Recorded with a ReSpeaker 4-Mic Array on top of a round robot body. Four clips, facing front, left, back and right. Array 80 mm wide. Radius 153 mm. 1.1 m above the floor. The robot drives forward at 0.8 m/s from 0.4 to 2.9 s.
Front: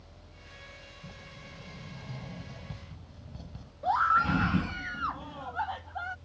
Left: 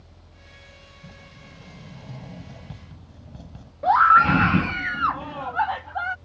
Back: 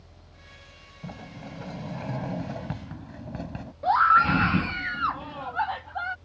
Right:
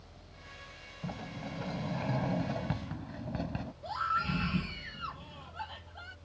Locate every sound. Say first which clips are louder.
1.0 s a sliding door: right 8 dB, back 12 dB; 145° right; by 3.7 s 150° right
3.8 s a scream: left 19 dB, back 6 dB; 110° left